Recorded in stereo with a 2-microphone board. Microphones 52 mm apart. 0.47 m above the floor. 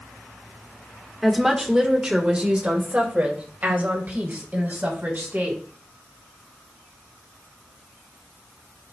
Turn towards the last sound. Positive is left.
turn(degrees=-40)  # may be behind; listen again after turning